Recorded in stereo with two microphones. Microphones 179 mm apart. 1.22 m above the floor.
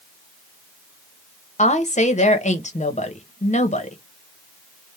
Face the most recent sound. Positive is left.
turn(degrees=40)  # may be behind; listen again after turning